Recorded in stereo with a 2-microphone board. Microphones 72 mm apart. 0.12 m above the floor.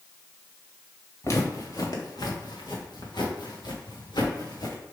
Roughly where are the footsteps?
Left.